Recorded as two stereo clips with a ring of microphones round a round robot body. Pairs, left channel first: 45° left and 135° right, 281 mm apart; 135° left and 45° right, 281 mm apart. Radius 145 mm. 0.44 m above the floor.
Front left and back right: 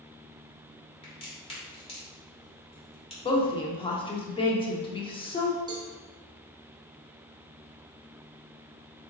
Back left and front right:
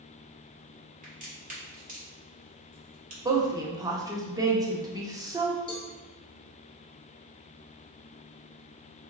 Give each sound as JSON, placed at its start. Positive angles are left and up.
{"t": 1.0, "sound": "a crack", "azimuth_deg": -10, "distance_m": 1.5}
{"t": 3.2, "sound": "a woman speaking", "azimuth_deg": 10, "distance_m": 0.7}
{"t": 5.7, "sound": "a cowbell", "azimuth_deg": 175, "distance_m": 1.0}